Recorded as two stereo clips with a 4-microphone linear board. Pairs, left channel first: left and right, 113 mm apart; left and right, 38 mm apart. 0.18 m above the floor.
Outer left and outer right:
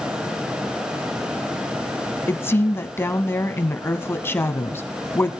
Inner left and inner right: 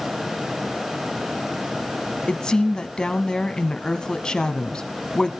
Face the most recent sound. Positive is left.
turn(degrees=20)  # may be behind; listen again after turning